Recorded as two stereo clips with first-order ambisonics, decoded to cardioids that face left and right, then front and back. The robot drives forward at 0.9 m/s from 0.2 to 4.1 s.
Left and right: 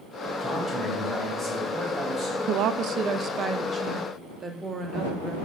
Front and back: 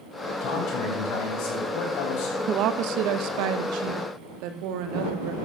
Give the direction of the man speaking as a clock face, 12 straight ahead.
12 o'clock.